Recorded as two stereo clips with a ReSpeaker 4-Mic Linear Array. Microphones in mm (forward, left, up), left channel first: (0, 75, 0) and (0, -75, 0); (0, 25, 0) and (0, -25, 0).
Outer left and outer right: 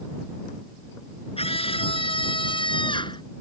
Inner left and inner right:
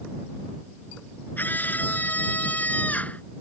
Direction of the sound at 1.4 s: 40° left (ahead or behind).